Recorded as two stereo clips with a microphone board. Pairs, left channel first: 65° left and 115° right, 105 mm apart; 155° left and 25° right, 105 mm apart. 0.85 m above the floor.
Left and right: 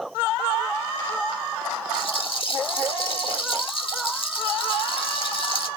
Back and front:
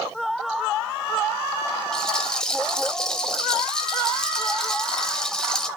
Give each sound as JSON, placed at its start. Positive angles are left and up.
{"t": 1.9, "sound": "a rattle", "azimuth_deg": 75, "distance_m": 0.9}